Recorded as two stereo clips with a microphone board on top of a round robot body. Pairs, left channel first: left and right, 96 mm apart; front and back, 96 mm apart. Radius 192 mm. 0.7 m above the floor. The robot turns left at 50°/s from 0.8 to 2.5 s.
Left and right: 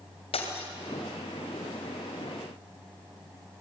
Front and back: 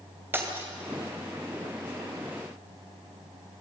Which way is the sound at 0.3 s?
110° left.